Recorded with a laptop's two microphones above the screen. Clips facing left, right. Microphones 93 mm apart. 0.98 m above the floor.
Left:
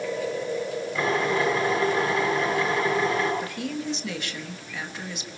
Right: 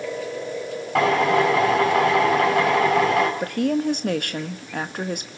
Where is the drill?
70° right (ahead or behind), 6 m.